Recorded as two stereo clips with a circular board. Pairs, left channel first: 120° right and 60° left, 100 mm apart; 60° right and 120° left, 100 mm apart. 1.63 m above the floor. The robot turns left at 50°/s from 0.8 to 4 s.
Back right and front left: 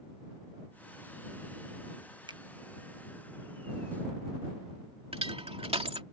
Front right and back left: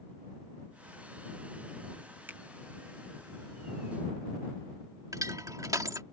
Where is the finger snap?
55° left; by 2.4 s 50° left.